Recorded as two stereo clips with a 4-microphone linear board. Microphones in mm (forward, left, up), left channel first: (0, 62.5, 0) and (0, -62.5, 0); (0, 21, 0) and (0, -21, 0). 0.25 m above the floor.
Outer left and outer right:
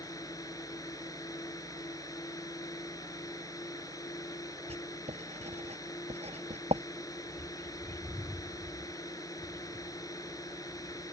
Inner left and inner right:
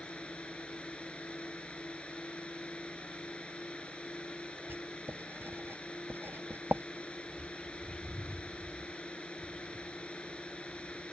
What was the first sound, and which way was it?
A drone, 30° left (ahead or behind).